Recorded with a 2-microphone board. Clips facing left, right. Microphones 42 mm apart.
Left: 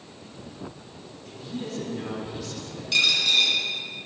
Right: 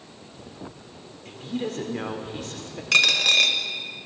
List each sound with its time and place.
1.2 s a woman speaking: 50° right (ahead or behind), 1.3 m
2.9 s a dropped coin: 75° right (ahead or behind), 0.9 m